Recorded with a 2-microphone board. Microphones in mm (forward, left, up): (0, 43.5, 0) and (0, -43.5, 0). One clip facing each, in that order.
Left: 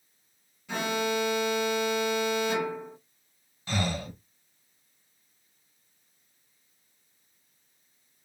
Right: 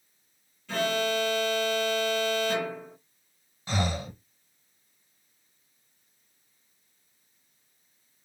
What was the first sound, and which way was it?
An alarm, 15° left (ahead or behind).